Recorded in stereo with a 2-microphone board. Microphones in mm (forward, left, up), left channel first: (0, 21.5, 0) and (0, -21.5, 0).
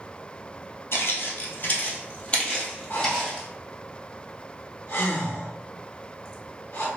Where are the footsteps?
60° left (ahead or behind), 1.1 m; by 3.5 s 5° left (ahead or behind), 1.6 m.